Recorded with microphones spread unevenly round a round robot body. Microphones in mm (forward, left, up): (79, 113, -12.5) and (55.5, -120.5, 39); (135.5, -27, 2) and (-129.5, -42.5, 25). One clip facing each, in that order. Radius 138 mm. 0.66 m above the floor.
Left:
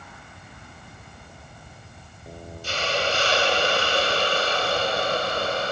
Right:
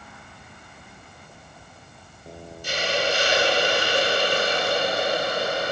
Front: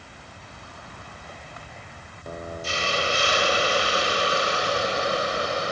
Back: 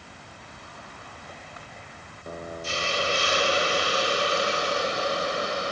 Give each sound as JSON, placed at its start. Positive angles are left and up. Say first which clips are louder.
{"t": 2.6, "sound": "a hiss", "louder": "right 1 dB, front 1 dB", "azimuth_deg": -20, "distance_m": 2.0}